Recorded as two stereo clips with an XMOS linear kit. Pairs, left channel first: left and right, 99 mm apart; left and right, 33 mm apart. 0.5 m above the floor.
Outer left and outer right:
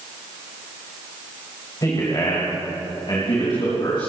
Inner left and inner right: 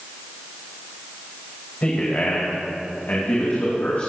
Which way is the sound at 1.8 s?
40° left (ahead or behind).